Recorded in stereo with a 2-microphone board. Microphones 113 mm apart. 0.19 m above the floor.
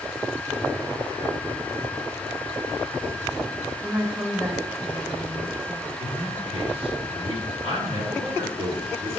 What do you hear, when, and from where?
3.8 s a woman speaking: 15° right (ahead or behind), 1.4 m
6.0 s a man speaking: 55° right (ahead or behind), 3 m